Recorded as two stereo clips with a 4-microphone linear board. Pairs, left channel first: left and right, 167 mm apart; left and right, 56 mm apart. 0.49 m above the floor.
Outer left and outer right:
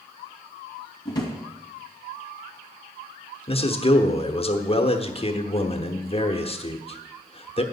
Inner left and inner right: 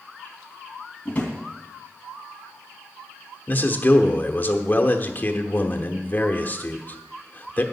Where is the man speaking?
35° left (ahead or behind), 1.0 m.